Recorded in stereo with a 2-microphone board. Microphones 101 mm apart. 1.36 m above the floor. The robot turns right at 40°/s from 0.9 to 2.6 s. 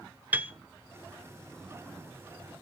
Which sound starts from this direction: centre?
A piano, at 0.3 s.